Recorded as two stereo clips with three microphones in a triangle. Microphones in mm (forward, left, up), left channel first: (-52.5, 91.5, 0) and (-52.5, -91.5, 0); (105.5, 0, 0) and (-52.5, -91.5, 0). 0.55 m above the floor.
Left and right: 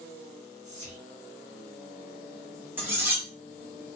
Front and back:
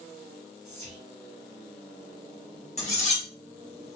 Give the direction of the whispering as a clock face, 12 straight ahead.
4 o'clock.